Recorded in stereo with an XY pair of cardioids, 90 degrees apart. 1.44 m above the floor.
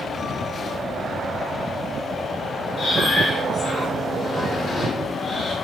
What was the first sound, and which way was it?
Breathing, 60° left.